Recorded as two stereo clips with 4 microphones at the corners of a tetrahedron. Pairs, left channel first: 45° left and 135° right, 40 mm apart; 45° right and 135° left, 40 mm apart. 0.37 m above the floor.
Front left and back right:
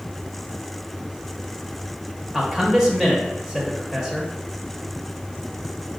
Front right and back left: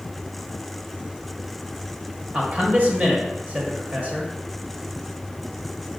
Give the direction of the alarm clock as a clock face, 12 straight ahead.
I don't hear an alarm clock.